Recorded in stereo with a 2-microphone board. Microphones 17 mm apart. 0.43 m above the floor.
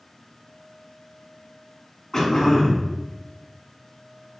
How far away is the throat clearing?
About 1.3 m.